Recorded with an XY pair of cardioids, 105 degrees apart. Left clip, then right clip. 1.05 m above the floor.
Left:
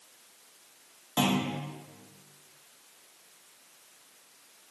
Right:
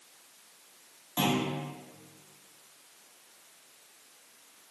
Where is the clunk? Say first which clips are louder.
Left 1 dB; 45° left, 1.2 m.